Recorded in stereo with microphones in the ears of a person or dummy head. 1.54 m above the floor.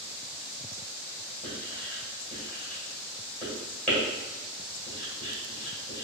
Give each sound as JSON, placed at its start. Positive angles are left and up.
{"t": 1.4, "sound": "writing", "side_deg": 10, "distance_m": 2.0}